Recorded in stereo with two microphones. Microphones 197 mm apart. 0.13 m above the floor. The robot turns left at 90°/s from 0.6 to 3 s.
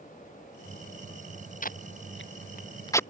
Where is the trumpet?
I don't hear a trumpet.